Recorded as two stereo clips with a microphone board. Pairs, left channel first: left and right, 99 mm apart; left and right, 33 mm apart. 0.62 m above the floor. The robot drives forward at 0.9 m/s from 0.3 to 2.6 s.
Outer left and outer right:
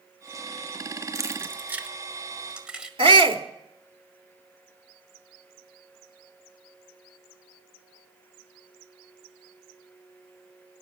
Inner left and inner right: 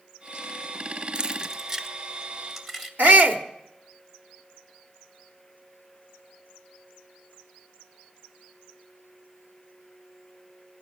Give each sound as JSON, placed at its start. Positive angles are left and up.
{"t": 1.1, "sound": "keys jangling", "side_deg": -30, "distance_m": 0.6}
{"t": 3.0, "sound": "a shout", "side_deg": -65, "distance_m": 1.6}